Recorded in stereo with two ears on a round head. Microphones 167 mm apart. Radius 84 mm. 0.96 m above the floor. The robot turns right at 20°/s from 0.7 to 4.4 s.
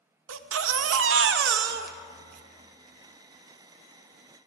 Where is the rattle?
I don't hear a rattle.